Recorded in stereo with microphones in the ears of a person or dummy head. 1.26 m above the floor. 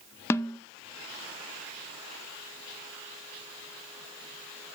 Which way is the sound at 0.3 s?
10° left (ahead or behind).